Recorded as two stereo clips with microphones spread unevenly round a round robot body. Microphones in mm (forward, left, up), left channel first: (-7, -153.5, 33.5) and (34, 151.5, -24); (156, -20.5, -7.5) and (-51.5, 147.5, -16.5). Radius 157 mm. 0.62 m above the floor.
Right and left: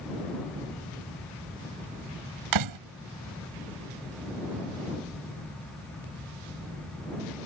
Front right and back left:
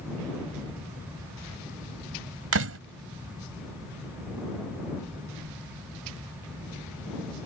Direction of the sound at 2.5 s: 105° left.